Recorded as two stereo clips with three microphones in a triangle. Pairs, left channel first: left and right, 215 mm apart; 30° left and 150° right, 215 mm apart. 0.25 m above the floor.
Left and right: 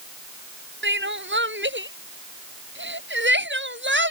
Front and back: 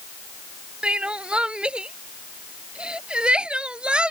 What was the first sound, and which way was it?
Crying, 65° right.